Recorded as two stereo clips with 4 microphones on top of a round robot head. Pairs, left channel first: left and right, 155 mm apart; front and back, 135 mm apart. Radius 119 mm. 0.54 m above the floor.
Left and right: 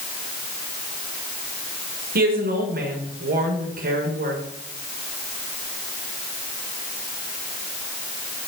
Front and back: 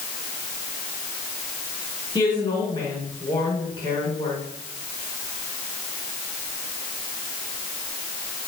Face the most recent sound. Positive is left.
turn(degrees=-65)